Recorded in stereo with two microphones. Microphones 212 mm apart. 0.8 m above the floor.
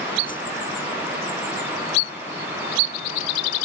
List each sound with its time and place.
0.3 s a whoosh: 40° left (ahead or behind)